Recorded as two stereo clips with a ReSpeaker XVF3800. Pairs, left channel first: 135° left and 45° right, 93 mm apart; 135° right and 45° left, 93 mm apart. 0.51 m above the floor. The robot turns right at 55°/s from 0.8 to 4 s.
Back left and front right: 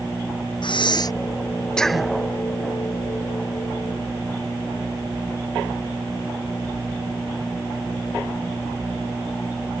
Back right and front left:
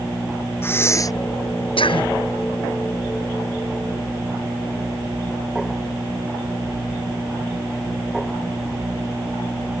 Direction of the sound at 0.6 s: 165° left.